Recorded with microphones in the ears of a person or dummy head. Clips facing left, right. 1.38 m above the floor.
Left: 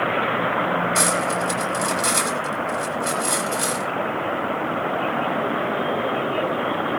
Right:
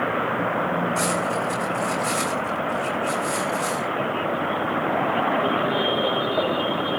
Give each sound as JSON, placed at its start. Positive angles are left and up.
{"t": 0.9, "sound": "cutlery clinking", "side_deg": 85, "distance_m": 5.5}